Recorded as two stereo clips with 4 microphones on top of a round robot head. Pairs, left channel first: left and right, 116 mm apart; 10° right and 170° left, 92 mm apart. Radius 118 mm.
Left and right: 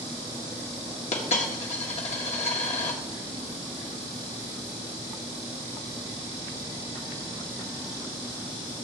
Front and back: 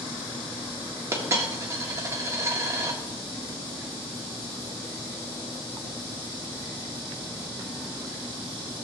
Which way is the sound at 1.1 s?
115° left.